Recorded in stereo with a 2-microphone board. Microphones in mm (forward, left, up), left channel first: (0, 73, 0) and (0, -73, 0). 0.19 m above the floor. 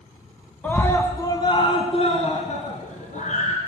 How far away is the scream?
About 1.8 m.